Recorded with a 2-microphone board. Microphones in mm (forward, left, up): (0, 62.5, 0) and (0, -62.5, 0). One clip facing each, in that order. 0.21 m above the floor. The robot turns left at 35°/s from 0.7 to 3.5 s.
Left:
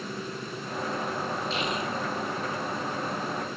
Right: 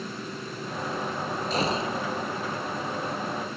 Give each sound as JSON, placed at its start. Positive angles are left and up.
{"t": 1.5, "sound": "a gunshot", "side_deg": -40}